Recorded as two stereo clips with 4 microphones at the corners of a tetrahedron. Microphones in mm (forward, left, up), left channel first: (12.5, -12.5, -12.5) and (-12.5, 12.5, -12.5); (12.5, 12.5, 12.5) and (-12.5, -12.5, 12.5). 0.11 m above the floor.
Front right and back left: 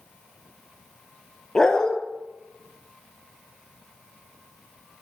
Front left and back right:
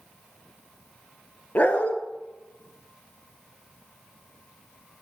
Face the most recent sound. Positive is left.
turn(degrees=25)